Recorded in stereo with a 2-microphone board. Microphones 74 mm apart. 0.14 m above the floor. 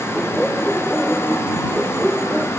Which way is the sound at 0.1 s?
5° left (ahead or behind).